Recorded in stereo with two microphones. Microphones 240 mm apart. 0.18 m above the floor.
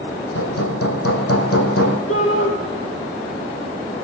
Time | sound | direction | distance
0.3 | hammering | 75° left (ahead or behind) | 3 m
2.1 | a shout | 70° left (ahead or behind) | 5.5 m